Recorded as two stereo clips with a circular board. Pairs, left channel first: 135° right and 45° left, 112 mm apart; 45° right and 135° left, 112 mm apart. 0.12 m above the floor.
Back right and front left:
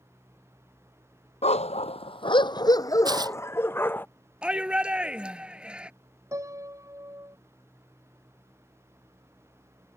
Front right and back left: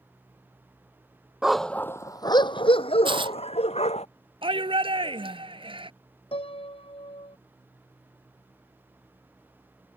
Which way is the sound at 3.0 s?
95° left.